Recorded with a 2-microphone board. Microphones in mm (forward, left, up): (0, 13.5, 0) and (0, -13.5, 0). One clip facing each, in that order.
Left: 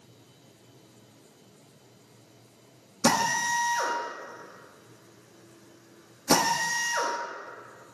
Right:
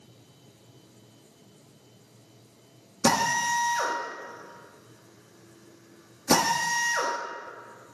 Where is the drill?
Centre (ahead or behind), 1.2 m.